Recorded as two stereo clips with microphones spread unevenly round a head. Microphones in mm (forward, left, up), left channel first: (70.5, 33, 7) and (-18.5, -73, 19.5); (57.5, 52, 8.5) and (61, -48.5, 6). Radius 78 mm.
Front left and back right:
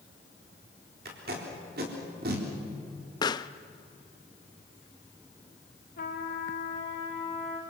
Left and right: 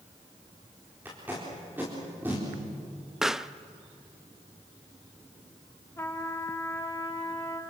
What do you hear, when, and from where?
1.1 s tape being pulled: 165° right, 4 m
3.2 s a pop: 5° right, 0.6 m
6.0 s a trumpet: 25° left, 3 m